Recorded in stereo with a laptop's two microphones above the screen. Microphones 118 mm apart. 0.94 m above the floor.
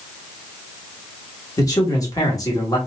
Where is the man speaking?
30° left (ahead or behind), 1.4 m.